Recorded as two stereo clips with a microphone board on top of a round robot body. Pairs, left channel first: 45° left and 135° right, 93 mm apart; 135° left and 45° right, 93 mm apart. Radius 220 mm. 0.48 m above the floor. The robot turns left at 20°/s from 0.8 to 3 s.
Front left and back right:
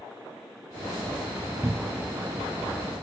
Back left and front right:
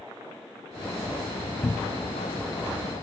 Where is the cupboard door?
175° right, 0.9 m; by 2.2 s 170° left, 0.9 m.